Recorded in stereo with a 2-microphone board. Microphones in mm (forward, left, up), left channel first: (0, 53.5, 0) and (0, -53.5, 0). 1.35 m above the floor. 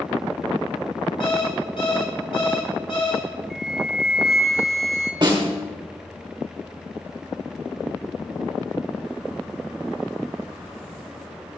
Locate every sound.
1.2 s an alarm clock: 55° left (ahead or behind), 1.6 m
3.5 s a flute: centre (ahead or behind), 0.7 m
5.2 s a snare drum: 45° right (ahead or behind), 2.0 m